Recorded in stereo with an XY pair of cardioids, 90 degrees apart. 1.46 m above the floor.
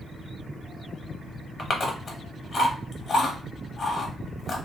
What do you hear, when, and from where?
1.6 s chewing: 45° left, 0.8 m